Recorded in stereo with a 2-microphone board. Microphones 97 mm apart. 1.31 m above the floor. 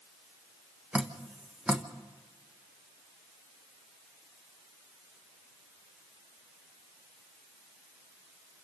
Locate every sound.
0.9 s dripping: 10° right (ahead or behind), 1.2 m